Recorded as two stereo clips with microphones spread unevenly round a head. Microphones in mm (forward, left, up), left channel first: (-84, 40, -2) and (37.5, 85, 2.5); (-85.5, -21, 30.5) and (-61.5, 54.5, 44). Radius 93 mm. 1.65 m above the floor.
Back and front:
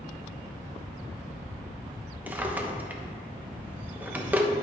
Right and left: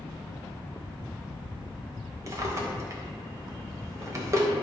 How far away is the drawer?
About 1.0 m.